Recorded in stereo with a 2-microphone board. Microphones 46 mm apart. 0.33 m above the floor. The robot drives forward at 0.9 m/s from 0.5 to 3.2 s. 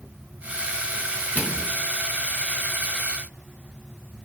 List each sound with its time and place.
1.4 s a microwave: 45° left (ahead or behind), 3.5 m; by 1.7 s 40° left (ahead or behind), 3.5 m